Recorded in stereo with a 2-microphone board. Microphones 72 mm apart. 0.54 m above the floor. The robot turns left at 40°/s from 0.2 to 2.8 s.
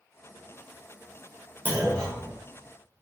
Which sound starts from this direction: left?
A clunk, at 1.6 s.